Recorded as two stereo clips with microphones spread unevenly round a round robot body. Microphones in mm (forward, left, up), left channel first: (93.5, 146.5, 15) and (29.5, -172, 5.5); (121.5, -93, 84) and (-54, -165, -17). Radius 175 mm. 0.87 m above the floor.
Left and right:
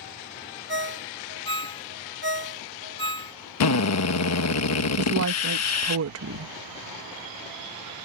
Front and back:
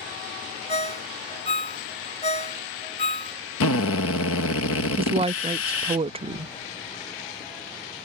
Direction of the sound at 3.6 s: 55° left.